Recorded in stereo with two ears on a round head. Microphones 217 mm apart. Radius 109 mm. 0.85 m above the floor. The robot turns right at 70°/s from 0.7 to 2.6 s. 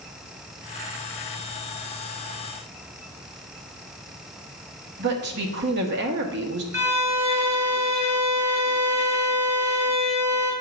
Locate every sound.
5.0 s a woman speaking: 45° right (ahead or behind), 1.4 m
6.7 s a violin: 15° right (ahead or behind), 2.5 m